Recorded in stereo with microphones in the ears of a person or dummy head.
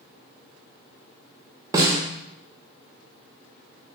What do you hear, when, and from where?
1.7 s a snare drum: 15° right (ahead or behind), 0.6 m